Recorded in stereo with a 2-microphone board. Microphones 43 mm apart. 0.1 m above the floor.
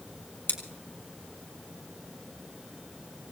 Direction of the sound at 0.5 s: 50° left (ahead or behind).